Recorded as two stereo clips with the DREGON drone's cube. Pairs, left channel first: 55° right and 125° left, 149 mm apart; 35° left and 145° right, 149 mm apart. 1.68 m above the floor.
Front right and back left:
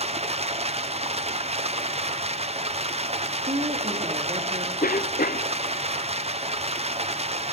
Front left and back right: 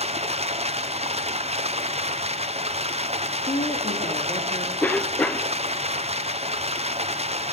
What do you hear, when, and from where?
0.0 s running water: 170° left, 0.8 m
3.5 s a woman speaking: 80° left, 3.5 m
4.8 s a cough: 45° right, 0.8 m